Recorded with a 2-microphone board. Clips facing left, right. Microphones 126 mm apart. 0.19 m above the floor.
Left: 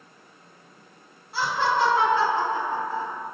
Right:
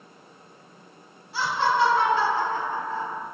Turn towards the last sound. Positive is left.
turn(degrees=-5)  # may be behind; listen again after turning